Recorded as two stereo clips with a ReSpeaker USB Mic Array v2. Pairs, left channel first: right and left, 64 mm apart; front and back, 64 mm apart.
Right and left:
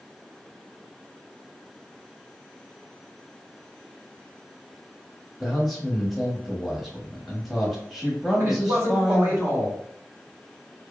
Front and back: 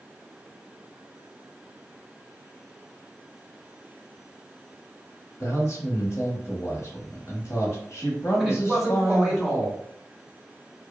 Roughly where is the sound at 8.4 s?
Left.